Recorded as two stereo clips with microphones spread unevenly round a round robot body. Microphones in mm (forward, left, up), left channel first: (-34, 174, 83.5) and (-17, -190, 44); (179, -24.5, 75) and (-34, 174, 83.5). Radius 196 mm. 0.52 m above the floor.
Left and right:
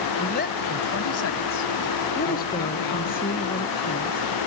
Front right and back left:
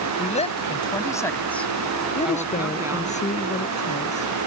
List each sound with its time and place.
0.2 s a woman speaking: 20° left; by 3.1 s 60° left
2.1 s a woman speaking: 25° left